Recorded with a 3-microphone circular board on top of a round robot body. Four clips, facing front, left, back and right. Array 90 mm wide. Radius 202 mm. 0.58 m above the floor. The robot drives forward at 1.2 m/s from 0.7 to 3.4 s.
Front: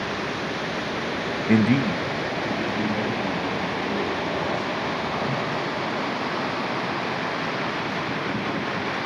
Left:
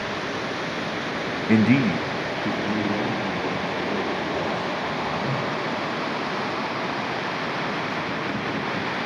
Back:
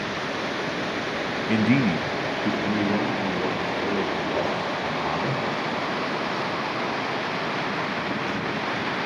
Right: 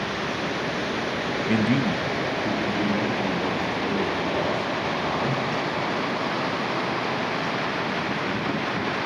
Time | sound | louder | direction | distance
1.5 | a man speaking | left 5 dB, front 1 dB | 40° left | 0.6 m